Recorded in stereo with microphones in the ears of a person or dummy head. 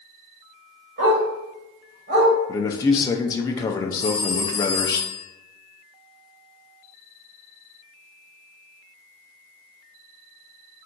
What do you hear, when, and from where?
1.0 s a dog barking: 55° right (ahead or behind), 1.8 m
2.5 s a man speaking: 25° left (ahead or behind), 0.5 m
4.0 s a phone ringing: 50° left (ahead or behind), 0.9 m